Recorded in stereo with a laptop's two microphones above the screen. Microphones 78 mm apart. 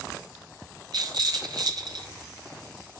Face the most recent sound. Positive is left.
turn(degrees=-60)  # may be behind; listen again after turning